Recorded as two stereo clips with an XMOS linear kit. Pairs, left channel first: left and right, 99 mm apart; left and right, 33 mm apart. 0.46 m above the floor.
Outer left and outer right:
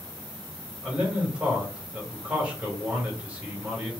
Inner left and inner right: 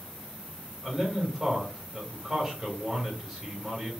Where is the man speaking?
10° right (ahead or behind), 2 m.